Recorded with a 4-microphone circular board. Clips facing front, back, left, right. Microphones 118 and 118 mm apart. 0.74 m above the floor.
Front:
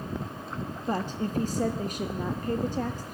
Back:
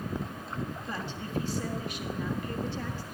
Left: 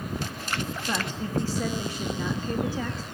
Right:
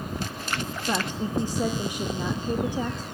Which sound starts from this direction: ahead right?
A woman speaking, at 0.9 s.